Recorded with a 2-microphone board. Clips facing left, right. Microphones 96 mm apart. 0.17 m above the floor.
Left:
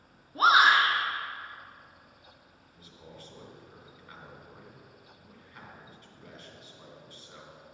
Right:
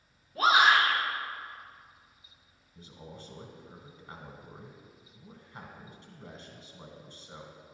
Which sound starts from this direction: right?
A man speaking, at 2.8 s.